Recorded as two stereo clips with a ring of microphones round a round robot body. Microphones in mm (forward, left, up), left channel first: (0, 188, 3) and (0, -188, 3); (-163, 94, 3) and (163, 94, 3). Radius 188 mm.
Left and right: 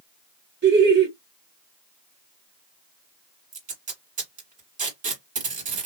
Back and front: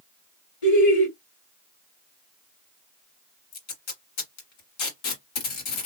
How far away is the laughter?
About 1.9 m.